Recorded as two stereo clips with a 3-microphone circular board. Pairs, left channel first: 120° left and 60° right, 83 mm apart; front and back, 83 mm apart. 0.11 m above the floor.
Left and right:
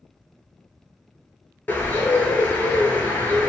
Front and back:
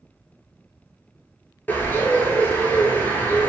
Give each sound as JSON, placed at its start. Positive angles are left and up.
{"t": 1.7, "sound": "a bird", "azimuth_deg": 60, "distance_m": 0.7}